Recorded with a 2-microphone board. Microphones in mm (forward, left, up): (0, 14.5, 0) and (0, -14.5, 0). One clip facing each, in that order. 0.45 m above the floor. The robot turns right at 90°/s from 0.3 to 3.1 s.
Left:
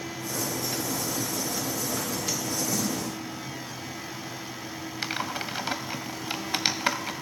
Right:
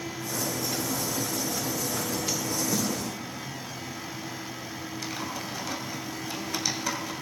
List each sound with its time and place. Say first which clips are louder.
2.7 s a snare drum: right 1 dB; 25° right (ahead or behind), 1.3 m; by 2.9 s 30° right (ahead or behind), 1.3 m
5.0 s typing on a keyboard: left 5 dB; 45° left (ahead or behind), 0.6 m